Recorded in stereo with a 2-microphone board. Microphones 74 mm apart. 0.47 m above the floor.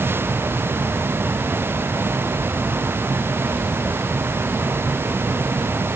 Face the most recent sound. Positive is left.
No sound to turn to.